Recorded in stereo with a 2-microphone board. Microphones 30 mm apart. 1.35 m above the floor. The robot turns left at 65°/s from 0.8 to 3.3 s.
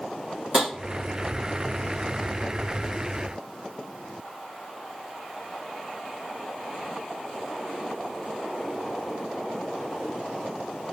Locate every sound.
0.5 s tapping: 30° right (ahead or behind), 1.0 m